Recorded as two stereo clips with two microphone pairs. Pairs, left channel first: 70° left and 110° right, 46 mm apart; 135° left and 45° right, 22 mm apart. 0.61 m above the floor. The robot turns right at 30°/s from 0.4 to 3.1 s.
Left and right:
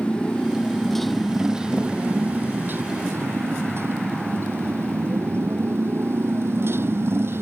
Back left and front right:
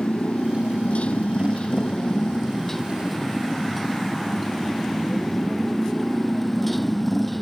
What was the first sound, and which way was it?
A motorcycle, 140° left.